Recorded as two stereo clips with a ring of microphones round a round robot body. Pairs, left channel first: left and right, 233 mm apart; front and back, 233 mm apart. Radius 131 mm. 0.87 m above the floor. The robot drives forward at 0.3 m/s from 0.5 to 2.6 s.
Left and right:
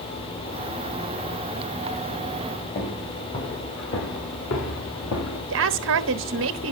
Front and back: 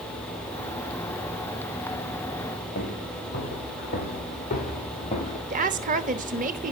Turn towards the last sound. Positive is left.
turn(degrees=-125)